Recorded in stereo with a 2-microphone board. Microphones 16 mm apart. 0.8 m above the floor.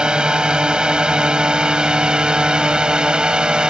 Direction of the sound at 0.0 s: 75° right (ahead or behind).